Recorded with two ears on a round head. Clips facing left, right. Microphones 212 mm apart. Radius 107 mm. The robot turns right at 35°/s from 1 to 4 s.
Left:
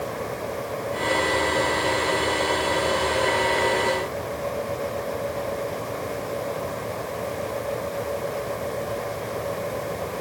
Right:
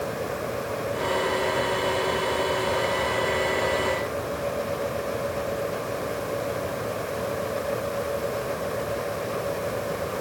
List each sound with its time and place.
Only background noise.